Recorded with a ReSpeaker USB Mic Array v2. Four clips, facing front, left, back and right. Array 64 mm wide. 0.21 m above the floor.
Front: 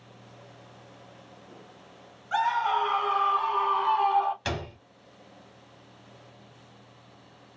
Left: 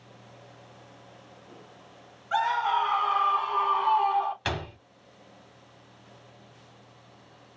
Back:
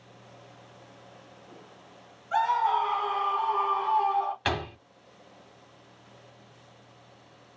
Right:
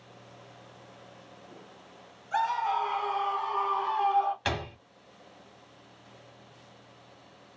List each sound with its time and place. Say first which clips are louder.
2.3 s a scream: left 3 dB, back 1 dB; 70° left, 1.8 m; by 4.3 s 25° left, 1.1 m
4.5 s a door slam: even, back 3 dB; straight behind, 0.8 m